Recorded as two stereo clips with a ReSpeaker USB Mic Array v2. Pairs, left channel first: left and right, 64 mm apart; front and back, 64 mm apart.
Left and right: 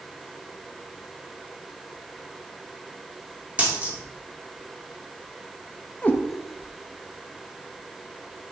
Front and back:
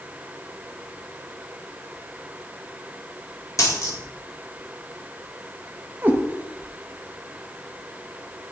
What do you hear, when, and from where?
3.6 s a dropped coin: 25° right, 2 m
6.0 s a cat meowing: 140° left, 1.0 m